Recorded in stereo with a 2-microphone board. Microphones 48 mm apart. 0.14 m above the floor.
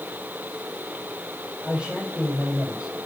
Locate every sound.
1.6 s a man speaking: 20° right (ahead or behind), 6.5 m